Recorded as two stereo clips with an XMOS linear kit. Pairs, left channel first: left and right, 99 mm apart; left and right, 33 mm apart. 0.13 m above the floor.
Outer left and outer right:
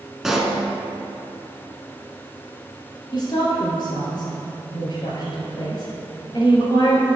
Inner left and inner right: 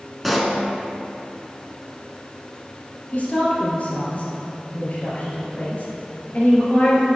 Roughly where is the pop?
Centre.